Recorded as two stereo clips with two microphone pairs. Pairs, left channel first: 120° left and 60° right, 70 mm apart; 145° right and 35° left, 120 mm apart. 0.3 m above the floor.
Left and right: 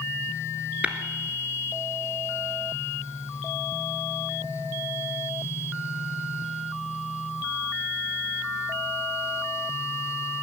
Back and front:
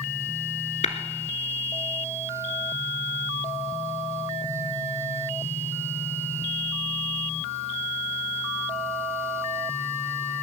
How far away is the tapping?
About 1.3 m.